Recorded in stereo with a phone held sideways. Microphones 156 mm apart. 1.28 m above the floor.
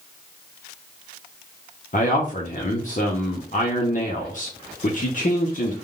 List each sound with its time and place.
1.9 s a man speaking: 50° left (ahead or behind), 0.8 m